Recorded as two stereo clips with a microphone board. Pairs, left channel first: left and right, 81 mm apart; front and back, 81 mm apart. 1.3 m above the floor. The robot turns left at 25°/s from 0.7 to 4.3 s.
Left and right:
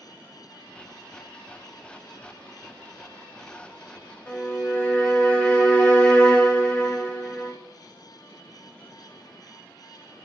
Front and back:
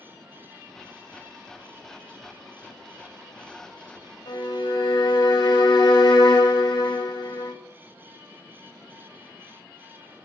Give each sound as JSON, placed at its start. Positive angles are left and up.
{"t": 4.3, "sound": "a violin", "azimuth_deg": 15, "distance_m": 0.5}